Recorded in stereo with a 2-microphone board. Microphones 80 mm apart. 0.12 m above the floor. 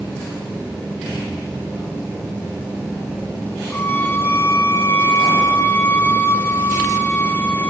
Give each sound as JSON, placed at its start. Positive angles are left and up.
{"t": 3.7, "sound": "a violin", "side_deg": 25, "distance_m": 2.0}